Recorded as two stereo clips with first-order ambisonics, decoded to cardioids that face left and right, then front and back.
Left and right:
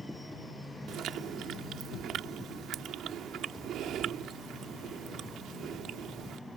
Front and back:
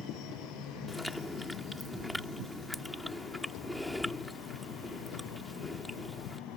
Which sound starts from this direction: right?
Chewing, at 0.9 s.